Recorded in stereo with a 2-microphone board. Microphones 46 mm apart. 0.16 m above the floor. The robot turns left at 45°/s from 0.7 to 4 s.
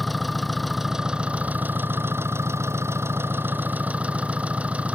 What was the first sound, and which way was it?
An engine running, straight ahead.